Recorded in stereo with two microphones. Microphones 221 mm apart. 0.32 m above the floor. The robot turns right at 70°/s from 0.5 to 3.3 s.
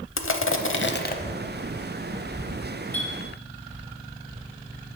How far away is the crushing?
About 0.6 m.